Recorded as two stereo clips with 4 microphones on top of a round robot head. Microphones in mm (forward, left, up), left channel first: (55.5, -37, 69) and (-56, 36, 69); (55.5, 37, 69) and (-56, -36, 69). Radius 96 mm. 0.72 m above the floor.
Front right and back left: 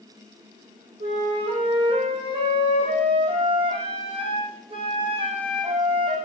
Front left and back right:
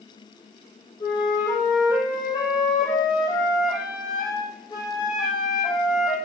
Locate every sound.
1.0 s a flute: 95° left, 5.5 m